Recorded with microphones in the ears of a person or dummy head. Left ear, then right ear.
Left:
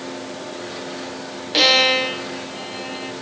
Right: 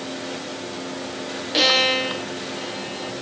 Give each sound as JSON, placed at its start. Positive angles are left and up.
{"t": 1.5, "sound": "a violin", "side_deg": 15}